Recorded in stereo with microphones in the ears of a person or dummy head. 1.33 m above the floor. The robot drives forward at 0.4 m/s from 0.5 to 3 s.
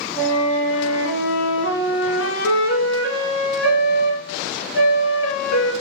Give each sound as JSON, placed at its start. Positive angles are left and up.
{"t": 0.2, "sound": "a flute", "side_deg": 45, "distance_m": 0.9}